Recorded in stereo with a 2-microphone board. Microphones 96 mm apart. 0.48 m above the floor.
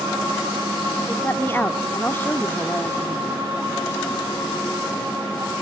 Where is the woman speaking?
20° left (ahead or behind), 0.7 m.